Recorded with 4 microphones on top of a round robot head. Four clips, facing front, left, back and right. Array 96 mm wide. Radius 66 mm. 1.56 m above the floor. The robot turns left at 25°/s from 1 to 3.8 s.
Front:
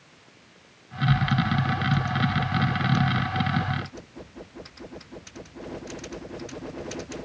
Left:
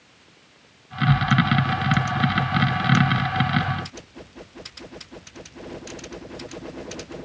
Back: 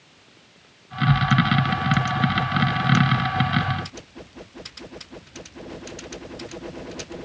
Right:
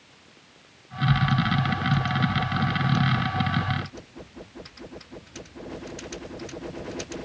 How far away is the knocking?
I don't hear knocking.